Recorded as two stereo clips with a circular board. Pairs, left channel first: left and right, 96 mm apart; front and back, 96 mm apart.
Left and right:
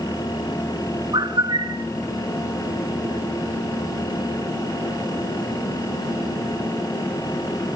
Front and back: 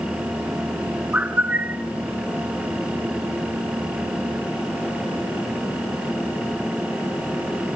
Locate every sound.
1.1 s a bird: 110° right, 1.2 m